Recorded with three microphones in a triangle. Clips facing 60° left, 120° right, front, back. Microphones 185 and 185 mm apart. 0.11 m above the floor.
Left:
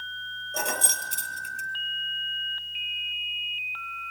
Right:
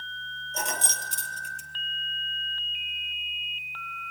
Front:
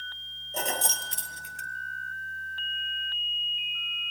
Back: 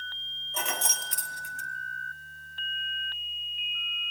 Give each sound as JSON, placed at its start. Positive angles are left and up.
{"t": 0.5, "sound": "keys jangling", "azimuth_deg": 45, "distance_m": 1.6}